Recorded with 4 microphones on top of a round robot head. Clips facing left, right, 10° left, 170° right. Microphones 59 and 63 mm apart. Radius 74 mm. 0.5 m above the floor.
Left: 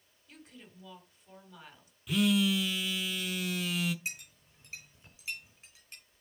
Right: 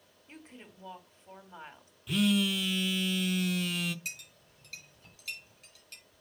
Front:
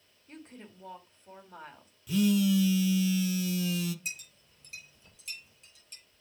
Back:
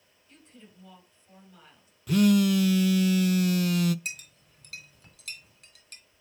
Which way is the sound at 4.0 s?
160° left.